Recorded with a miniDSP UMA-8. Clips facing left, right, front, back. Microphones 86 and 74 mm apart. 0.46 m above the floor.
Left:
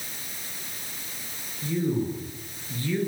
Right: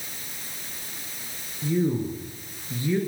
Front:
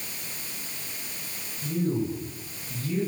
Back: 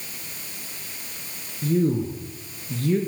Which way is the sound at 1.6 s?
165° right.